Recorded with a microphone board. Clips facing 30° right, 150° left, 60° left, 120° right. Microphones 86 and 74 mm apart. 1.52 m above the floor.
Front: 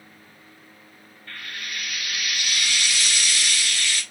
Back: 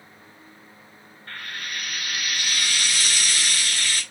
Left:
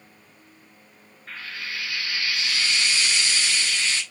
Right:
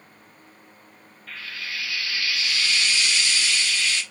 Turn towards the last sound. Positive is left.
turn(degrees=110)